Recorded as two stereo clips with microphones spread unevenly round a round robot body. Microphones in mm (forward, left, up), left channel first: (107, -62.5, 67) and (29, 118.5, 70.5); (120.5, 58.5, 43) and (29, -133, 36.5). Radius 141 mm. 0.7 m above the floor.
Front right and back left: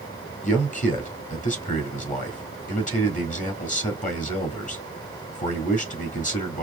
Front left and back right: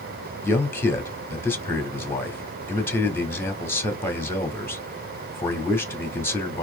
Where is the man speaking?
15° right, 1.8 m.